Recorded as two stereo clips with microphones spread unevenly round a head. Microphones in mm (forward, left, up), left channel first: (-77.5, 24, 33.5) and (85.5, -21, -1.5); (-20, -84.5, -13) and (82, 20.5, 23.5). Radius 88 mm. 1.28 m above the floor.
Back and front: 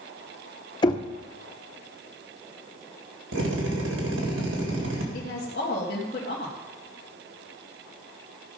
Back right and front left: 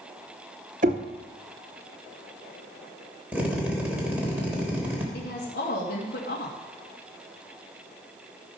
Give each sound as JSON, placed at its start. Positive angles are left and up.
{"t": 0.8, "sound": "knocking", "azimuth_deg": 100, "distance_m": 0.8}
{"t": 3.3, "sound": "a drill", "azimuth_deg": -30, "distance_m": 3.0}
{"t": 5.1, "sound": "a woman speaking", "azimuth_deg": -160, "distance_m": 1.9}